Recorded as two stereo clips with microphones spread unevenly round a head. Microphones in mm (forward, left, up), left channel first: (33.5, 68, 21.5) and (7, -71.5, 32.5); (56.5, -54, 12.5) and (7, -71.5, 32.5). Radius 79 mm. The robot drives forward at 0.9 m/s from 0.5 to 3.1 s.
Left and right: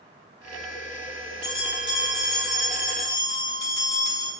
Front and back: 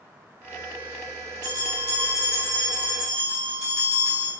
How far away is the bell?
About 4 m.